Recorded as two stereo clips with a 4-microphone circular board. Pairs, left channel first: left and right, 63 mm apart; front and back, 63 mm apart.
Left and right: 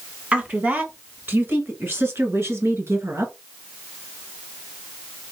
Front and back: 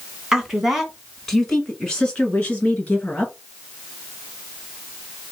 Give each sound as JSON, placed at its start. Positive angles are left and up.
{"t": 0.3, "sound": "a woman speaking", "azimuth_deg": -115, "distance_m": 1.4}